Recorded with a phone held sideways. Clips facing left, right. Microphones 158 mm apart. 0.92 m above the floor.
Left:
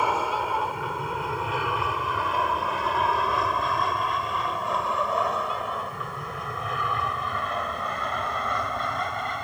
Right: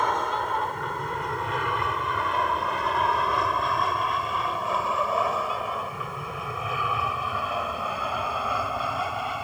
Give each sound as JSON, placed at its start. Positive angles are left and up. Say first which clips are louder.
{"t": 0.0, "sound": "an aircraft", "louder": "left 1 dB", "side_deg": 5}